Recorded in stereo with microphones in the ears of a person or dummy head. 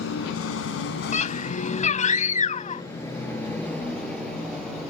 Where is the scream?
45° left (ahead or behind).